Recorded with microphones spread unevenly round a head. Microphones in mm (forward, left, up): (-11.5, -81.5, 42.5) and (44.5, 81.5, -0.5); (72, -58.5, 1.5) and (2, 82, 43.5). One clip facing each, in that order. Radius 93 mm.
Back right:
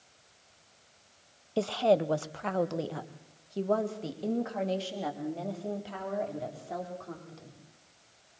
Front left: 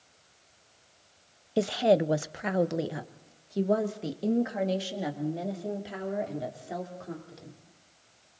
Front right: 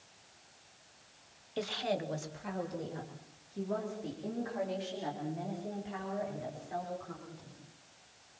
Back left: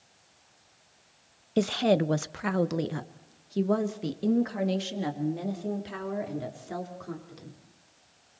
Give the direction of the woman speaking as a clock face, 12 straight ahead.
8 o'clock.